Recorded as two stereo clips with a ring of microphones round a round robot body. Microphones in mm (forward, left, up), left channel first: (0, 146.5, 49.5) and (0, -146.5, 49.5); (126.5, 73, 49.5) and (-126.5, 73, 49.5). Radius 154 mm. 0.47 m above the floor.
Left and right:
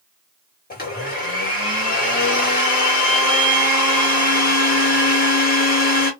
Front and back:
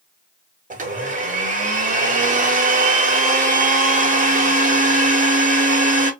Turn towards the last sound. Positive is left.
turn(degrees=135)